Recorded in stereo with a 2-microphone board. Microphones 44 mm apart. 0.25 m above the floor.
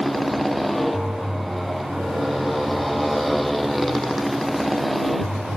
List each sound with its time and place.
0.0 s a motorcycle: centre (ahead or behind)